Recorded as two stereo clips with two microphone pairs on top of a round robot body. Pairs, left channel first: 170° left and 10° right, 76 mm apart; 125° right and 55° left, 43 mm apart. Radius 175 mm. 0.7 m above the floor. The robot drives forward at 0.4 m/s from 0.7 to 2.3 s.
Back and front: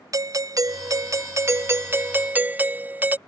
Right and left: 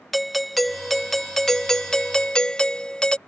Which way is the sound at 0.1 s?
45° right.